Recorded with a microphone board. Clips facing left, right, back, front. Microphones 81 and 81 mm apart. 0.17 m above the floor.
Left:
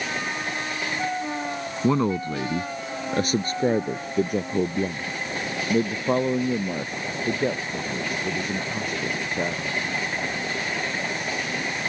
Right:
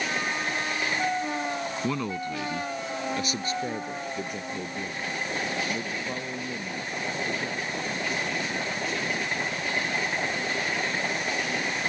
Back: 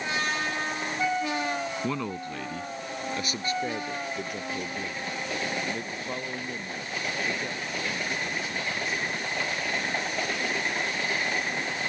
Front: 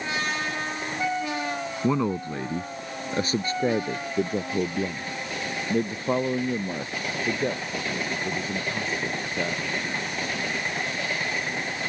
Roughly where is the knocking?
I don't hear knocking.